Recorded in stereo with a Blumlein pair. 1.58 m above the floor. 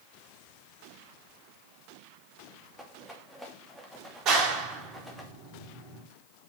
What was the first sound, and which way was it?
A rattle, straight ahead.